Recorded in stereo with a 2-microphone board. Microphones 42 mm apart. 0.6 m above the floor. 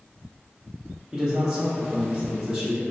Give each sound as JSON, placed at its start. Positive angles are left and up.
{"t": 1.1, "sound": "a man speaking", "side_deg": -15, "distance_m": 0.6}